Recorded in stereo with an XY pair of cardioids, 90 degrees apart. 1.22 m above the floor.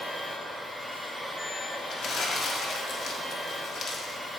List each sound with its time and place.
0.0 s a machine running: 5° left, 2.5 m
1.9 s crumpling: 55° left, 1.5 m